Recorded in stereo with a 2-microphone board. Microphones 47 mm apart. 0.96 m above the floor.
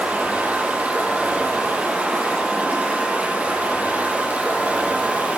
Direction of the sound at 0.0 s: 30° right (ahead or behind).